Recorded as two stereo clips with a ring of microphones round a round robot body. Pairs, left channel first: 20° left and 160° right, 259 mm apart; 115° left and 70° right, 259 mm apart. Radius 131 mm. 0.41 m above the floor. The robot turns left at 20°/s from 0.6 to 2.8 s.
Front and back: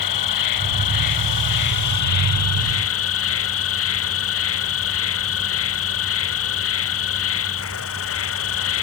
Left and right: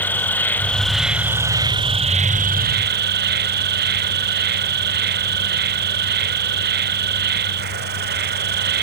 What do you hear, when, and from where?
0.0 s an insect: 30° left; by 8.8 s 15° right